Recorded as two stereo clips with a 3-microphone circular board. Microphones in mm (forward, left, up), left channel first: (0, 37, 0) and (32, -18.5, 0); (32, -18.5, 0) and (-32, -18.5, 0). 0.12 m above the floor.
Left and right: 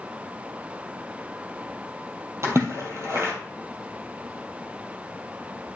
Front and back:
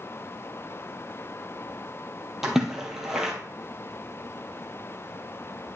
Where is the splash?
100° right, 2.5 m.